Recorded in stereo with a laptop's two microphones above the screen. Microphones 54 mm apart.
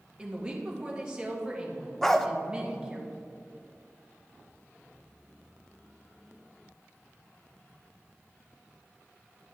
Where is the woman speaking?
15° right (ahead or behind), 1.7 m.